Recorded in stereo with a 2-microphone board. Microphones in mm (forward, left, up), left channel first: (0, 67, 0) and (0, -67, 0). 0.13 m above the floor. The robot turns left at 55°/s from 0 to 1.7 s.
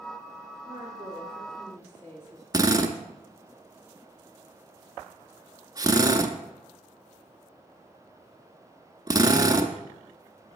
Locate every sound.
0.7 s a woman speaking: 145° right, 2.5 m; by 2.4 s 155° left, 2.5 m
2.5 s a drill: 30° right (ahead or behind), 0.7 m